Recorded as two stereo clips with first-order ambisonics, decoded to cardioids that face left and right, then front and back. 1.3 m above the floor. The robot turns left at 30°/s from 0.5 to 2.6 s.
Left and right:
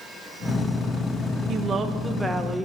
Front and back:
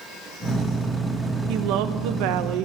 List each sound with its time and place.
1.5 s a woman speaking: 150° right, 1.1 m; by 2.6 s 175° left, 1.1 m